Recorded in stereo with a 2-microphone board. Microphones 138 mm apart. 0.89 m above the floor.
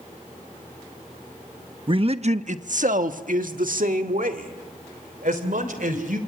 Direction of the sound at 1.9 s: 35° right (ahead or behind).